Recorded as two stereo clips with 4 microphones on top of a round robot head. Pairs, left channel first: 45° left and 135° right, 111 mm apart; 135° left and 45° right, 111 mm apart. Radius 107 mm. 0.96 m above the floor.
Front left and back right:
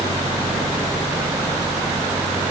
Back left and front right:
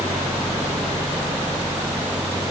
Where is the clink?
I don't hear a clink.